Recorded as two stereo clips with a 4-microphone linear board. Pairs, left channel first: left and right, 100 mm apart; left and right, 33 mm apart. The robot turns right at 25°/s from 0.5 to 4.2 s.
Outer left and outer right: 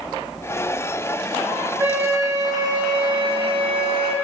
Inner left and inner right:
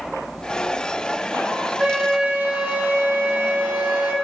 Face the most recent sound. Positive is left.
turn(degrees=-95)